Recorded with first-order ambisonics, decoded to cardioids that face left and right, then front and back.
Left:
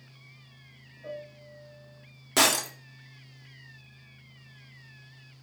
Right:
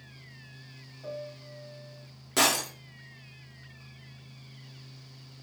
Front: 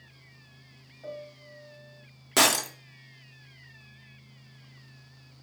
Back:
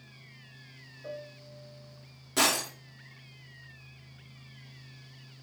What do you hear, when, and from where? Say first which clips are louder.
1.0 s a piano: right 1 dB, front 1 dB; 25° right, 2.5 m
2.4 s breaking glass: left 2 dB, front 4 dB; 25° left, 0.7 m